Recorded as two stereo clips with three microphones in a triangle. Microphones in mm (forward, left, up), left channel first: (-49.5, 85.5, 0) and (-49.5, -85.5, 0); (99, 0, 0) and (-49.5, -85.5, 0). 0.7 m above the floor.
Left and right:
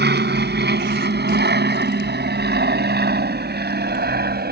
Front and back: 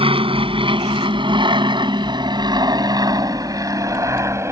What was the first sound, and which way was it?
An aircraft, 95° right.